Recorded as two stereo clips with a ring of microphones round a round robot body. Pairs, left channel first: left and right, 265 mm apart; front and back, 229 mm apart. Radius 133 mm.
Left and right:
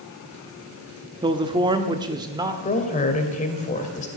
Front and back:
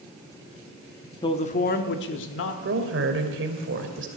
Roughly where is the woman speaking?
Behind left.